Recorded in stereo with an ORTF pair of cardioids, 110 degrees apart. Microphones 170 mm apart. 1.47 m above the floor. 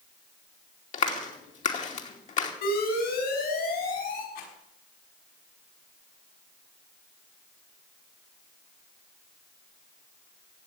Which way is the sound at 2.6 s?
65° left.